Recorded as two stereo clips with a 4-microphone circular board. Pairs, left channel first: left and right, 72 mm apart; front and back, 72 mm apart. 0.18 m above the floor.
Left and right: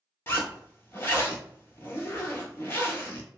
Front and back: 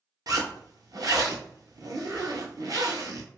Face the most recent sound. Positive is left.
turn(degrees=145)